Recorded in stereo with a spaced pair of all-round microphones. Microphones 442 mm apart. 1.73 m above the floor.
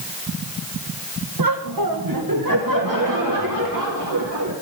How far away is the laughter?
About 1.2 m.